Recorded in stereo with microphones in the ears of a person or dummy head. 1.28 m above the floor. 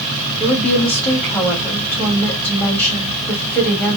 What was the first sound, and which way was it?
A woman speaking, 5° left (ahead or behind).